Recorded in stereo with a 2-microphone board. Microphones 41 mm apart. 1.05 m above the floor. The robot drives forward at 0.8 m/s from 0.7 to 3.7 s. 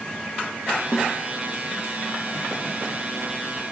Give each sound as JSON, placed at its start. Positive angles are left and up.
{"t": 0.9, "sound": "a snare drum", "side_deg": -5, "distance_m": 0.9}